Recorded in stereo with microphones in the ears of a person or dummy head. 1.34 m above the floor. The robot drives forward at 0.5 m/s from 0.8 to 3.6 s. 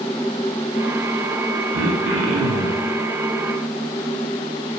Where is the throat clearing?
75° right (ahead or behind), 1.7 m.